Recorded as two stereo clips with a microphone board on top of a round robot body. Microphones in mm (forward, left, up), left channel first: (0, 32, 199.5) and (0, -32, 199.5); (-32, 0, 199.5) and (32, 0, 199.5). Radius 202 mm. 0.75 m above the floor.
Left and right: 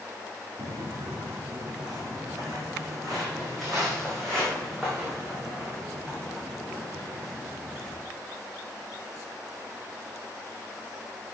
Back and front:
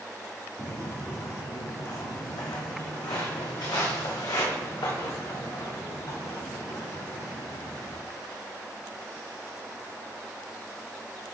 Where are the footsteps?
135° right, 0.9 m; by 8.0 s 170° left, 5.5 m.